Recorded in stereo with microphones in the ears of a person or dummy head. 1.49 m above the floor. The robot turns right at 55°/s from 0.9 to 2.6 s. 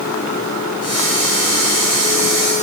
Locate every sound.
Only background noise.